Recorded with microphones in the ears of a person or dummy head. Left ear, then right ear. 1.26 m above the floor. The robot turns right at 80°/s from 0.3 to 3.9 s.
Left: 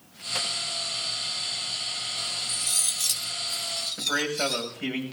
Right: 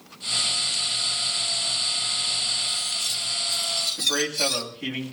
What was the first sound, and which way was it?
Cutlery clinking, 75° left.